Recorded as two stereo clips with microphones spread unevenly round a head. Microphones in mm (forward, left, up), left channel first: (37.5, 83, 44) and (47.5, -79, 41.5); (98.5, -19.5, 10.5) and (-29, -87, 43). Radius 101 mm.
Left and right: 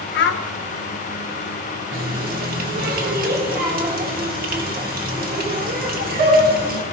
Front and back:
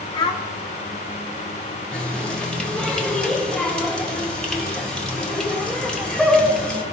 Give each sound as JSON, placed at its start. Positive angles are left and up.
{"t": 0.1, "sound": "a child speaking", "azimuth_deg": 90, "distance_m": 1.2}
{"t": 1.9, "sound": "a running tap", "azimuth_deg": -55, "distance_m": 1.9}